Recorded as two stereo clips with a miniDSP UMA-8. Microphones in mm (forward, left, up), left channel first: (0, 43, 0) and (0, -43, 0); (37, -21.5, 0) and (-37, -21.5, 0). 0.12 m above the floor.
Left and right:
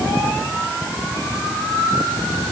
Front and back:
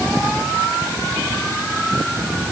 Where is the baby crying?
No baby crying in this recording.